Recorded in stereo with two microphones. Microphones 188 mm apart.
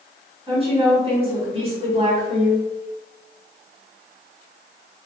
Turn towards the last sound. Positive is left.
turn(degrees=-30)  # may be behind; listen again after turning